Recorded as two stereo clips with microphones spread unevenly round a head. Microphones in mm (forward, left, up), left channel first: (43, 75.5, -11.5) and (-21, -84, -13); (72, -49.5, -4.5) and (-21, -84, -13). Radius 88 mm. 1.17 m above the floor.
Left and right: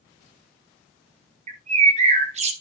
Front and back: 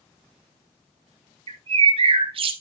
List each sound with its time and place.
1.5 s a bird: 160° right, 1.1 m